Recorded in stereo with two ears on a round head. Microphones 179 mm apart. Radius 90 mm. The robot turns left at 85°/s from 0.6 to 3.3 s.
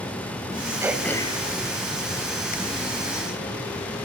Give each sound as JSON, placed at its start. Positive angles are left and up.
{"t": 0.8, "sound": "throat clearing", "side_deg": -15, "distance_m": 2.0}